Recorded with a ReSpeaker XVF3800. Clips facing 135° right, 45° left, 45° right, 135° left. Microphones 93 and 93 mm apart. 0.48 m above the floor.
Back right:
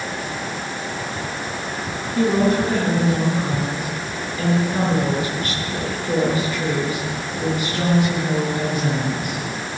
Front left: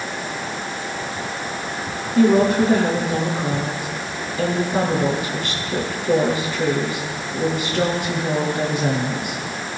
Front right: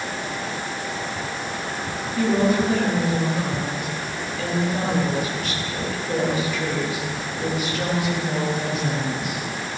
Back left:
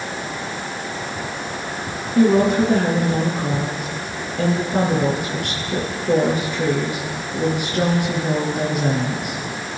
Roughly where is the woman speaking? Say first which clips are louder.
Front left 3 dB, back left 5 dB; left.